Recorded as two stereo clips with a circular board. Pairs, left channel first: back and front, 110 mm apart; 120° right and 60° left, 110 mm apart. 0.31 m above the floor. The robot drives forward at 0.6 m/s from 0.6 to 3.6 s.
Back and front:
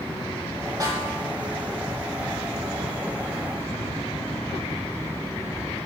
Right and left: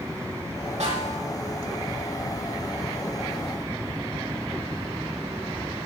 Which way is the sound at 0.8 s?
55° left.